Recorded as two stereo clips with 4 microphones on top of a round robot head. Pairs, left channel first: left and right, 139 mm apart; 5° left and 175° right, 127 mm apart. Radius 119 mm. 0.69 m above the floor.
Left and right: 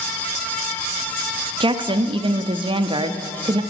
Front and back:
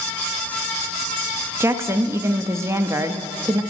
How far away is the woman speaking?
About 0.6 m.